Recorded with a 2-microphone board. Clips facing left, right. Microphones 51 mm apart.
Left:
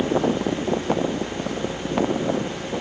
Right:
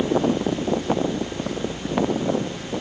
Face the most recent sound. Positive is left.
No sound to turn to.